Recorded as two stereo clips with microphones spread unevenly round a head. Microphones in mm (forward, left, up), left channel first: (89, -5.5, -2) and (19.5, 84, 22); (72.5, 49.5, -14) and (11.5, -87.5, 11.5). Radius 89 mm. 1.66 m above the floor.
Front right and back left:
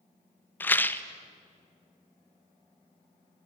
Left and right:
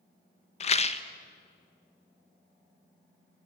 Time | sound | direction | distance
0.6 | a rattle | 30° left | 1.0 m